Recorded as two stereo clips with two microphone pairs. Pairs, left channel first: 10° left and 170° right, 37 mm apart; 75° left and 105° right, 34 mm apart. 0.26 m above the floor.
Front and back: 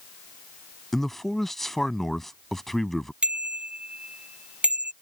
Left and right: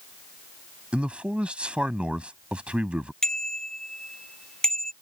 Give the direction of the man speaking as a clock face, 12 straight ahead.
2 o'clock.